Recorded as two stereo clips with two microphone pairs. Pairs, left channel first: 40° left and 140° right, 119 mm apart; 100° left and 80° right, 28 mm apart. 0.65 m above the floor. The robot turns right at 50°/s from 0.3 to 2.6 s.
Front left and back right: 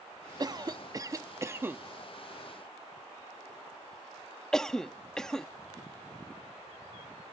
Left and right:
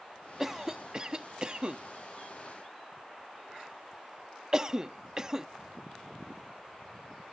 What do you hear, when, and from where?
0.4 s a cough: 150° right; by 5.5 s 40° right